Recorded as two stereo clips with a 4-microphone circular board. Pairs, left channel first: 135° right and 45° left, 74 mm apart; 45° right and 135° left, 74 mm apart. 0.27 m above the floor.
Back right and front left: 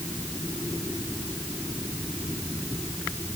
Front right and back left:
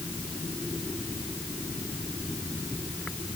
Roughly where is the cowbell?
I don't hear a cowbell.